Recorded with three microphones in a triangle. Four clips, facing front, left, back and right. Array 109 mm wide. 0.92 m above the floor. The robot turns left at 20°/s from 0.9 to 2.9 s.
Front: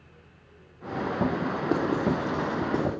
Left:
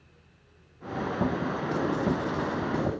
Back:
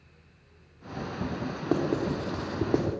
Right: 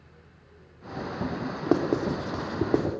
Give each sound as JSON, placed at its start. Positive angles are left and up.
{"t": 1.7, "sound": "writing", "azimuth_deg": -85, "distance_m": 3.0}